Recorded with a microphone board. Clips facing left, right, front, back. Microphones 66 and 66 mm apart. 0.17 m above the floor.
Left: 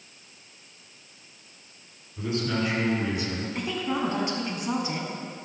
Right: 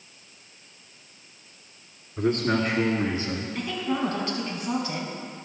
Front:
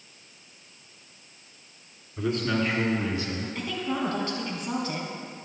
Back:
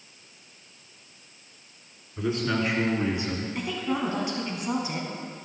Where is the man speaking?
90° right, 2 m; by 3.5 s 130° right, 1.8 m.